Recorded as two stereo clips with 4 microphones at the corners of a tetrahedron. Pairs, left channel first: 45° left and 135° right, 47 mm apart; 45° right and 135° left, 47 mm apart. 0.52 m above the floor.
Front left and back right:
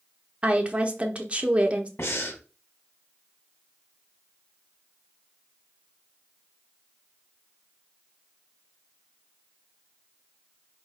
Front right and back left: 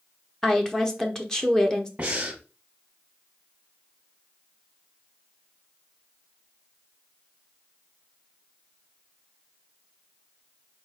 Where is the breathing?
70° left, 1.0 m.